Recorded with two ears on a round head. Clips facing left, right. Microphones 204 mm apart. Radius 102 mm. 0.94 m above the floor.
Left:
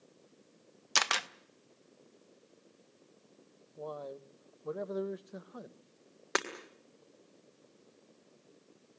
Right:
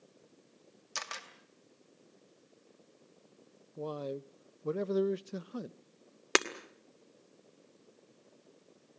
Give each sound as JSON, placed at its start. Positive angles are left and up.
{"t": 0.9, "sound": "a camera shutter", "side_deg": 75, "distance_m": 0.7}
{"t": 3.8, "sound": "a man speaking", "side_deg": -40, "distance_m": 0.5}
{"t": 6.3, "sound": "breaking glass", "side_deg": -40, "distance_m": 1.6}